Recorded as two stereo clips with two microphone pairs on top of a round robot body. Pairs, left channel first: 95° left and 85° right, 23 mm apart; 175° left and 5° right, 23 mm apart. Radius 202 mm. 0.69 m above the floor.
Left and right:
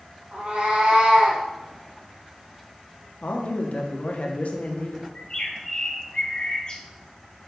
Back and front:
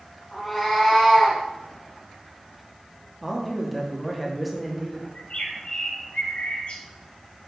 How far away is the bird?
About 1.9 m.